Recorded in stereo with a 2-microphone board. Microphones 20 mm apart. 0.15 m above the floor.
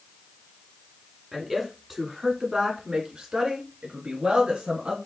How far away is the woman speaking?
About 1.8 m.